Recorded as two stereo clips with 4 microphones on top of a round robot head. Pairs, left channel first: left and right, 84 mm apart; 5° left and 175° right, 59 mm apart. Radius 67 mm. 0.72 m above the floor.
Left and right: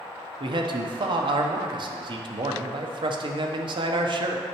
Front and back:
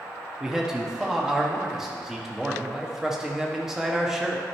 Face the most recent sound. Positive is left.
turn(degrees=-95)